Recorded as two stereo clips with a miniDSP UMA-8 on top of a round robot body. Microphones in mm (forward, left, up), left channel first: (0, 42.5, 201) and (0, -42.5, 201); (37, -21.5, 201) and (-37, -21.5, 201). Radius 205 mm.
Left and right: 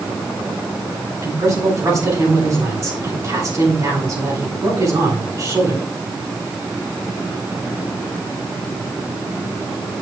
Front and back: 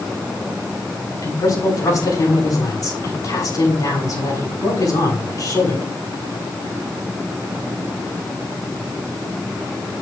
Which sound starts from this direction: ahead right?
A man speaking, at 1.2 s.